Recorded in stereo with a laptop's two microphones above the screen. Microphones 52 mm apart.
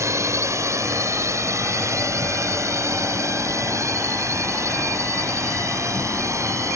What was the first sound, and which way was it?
A drone, 70° right (ahead or behind).